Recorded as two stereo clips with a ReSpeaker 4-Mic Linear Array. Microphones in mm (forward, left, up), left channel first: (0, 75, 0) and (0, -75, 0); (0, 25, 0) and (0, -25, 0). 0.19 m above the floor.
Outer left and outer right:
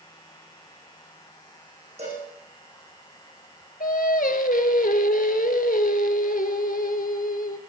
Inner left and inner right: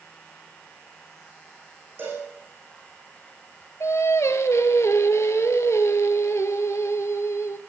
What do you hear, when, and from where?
2.0 s a cowbell: 45° right (ahead or behind), 8 m
3.8 s singing: 75° left (ahead or behind), 1.0 m